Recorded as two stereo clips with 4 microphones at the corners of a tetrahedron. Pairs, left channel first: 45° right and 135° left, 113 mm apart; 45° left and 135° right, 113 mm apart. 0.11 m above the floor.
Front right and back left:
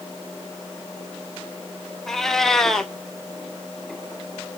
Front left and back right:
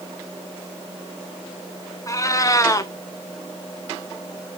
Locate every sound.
2.1 s a cat meowing: 40° left, 0.8 m